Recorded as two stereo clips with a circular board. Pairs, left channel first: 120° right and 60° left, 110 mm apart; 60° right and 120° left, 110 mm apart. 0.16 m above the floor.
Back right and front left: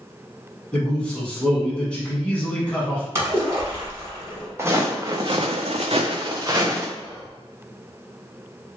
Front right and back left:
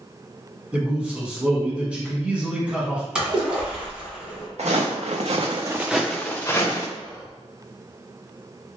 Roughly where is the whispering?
Left.